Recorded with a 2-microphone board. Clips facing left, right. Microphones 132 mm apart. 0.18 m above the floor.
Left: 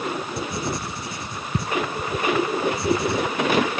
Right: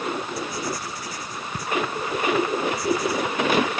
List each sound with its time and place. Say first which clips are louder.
0.4 s writing: left 2 dB; 25° left (ahead or behind)